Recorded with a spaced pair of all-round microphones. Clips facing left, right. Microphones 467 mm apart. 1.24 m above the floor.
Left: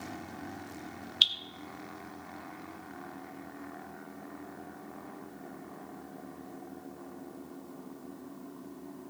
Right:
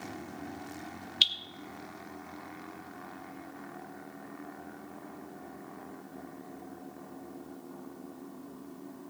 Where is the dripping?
45° right (ahead or behind), 0.9 m.